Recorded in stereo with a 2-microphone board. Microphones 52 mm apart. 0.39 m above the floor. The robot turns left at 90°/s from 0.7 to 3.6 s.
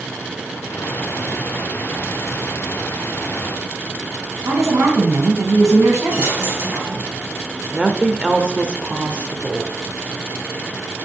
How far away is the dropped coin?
About 4 m.